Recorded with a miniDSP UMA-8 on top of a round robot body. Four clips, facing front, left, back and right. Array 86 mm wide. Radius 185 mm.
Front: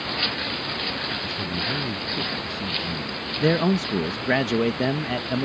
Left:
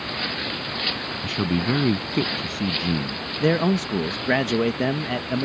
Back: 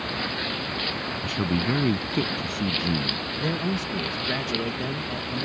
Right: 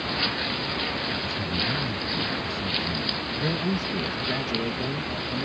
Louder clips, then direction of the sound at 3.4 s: Left 8 dB, front 8 dB; 50° left.